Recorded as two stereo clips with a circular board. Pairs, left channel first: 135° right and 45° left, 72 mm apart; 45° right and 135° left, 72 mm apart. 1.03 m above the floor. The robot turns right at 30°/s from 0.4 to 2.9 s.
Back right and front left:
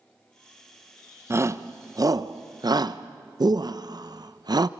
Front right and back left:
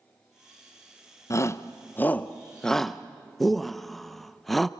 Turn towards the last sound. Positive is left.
turn(degrees=45)